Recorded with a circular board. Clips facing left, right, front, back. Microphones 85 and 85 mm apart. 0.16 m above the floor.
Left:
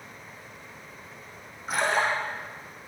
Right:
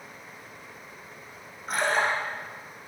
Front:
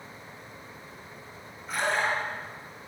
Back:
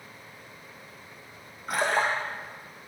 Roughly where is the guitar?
No guitar in this recording.